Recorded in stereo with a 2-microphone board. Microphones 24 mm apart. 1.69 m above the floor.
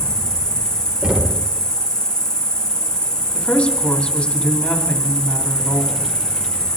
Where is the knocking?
40° right (ahead or behind), 1.8 m.